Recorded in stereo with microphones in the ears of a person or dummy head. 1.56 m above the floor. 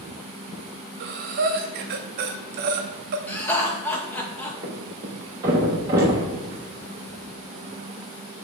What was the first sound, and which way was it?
Breathing, 50° right (ahead or behind).